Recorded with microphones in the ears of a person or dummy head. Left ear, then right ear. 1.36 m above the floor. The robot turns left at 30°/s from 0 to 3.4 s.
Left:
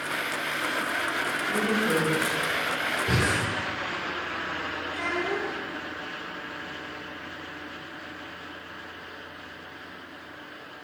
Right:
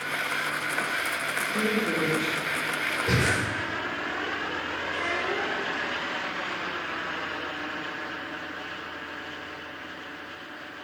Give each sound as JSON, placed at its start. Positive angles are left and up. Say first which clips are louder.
{"t": 1.5, "sound": "a woman speaking", "louder": "left 3 dB", "side_deg": 35, "distance_m": 4.0}
{"t": 3.1, "sound": "breathing", "louder": "right 1 dB", "side_deg": -15, "distance_m": 4.5}
{"t": 4.9, "sound": "a child speaking", "louder": "right 1 dB", "side_deg": 35, "distance_m": 2.5}